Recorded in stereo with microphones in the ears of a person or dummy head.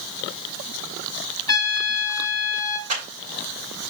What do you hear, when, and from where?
1.5 s a trumpet: 25° left (ahead or behind), 1.2 m
2.9 s a clap: 35° right (ahead or behind), 4.5 m